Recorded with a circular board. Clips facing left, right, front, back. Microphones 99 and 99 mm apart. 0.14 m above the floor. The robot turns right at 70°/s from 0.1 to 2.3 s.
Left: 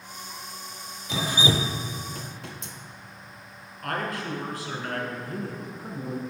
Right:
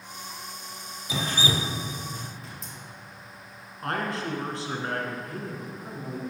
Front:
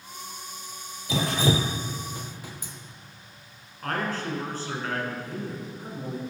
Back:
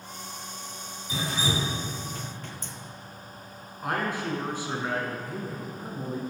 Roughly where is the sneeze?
I don't hear a sneeze.